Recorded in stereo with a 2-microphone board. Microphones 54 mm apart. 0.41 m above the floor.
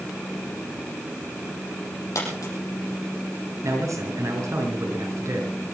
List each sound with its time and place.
2.1 s a dropped coin: 80° left, 6.5 m
3.6 s a man speaking: 80° right, 5.5 m